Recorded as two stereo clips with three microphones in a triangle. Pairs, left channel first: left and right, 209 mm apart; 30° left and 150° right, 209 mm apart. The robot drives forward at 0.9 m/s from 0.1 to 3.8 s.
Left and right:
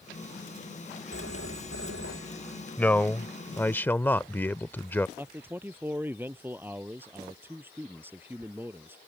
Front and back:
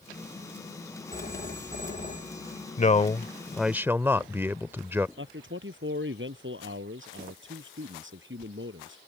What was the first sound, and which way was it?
A phone ringing, 80° left.